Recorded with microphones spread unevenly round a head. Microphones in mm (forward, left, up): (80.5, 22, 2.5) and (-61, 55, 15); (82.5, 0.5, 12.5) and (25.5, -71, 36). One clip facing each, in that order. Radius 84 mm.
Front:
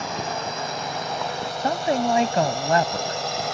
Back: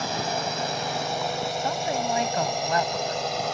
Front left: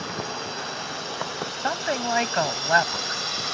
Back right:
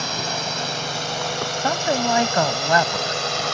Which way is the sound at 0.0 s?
125° right.